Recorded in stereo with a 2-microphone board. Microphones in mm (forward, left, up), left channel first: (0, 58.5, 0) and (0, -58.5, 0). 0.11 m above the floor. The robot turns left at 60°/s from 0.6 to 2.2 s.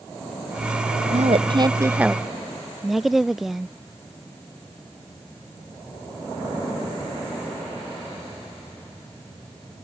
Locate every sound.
1.1 s a woman speaking: 115° right; by 3.7 s straight behind